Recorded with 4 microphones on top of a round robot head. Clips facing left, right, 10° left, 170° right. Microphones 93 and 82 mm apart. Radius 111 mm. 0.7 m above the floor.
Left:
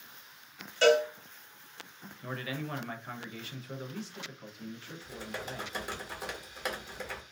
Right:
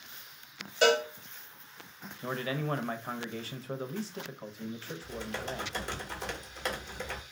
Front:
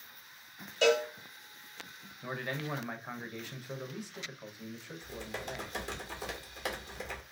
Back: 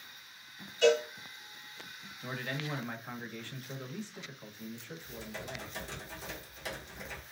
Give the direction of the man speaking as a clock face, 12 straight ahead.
2 o'clock.